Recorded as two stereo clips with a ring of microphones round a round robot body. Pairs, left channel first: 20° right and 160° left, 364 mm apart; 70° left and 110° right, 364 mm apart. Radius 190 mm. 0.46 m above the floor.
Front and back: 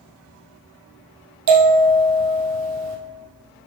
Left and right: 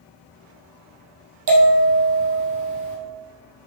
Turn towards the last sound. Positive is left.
turn(degrees=-155)